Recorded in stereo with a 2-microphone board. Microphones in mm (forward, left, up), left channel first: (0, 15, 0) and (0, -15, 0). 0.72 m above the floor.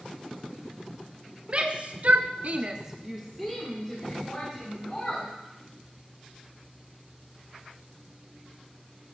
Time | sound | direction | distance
1.5 | a shout | 40° right (ahead or behind) | 1.7 m